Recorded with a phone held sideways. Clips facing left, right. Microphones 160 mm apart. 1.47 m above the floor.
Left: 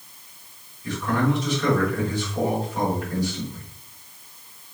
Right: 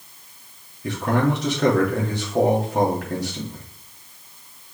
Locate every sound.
0.8 s a man speaking: 70° right (ahead or behind), 3.5 m